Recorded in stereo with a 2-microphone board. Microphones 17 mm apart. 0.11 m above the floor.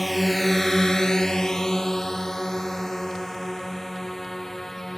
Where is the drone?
Centre (ahead or behind); by 5.0 s 25° left (ahead or behind).